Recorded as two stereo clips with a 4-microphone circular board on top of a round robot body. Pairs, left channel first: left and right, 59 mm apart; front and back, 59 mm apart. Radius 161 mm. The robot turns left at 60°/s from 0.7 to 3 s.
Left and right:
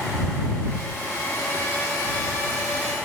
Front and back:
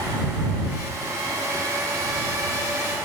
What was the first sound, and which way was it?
Only background noise.